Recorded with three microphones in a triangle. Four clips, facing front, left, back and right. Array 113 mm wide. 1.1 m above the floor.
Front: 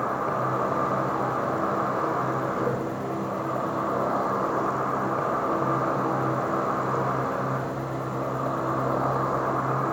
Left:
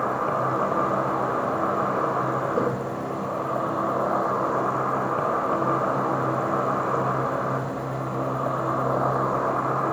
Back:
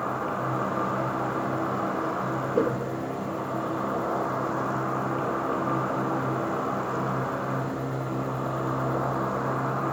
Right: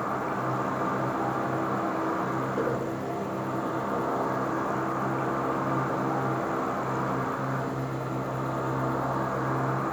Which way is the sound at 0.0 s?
75° left.